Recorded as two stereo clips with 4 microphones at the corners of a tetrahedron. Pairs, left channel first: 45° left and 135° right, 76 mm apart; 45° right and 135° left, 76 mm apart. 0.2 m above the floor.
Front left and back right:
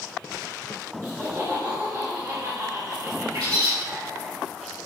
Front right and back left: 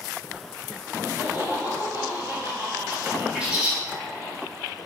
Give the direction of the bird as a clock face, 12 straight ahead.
5 o'clock.